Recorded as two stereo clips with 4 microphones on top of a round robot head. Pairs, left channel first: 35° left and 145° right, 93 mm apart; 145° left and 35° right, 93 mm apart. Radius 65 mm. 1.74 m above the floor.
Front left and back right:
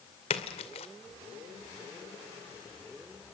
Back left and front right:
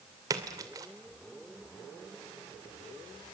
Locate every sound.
0.3 s a splash: 15° left, 2.5 m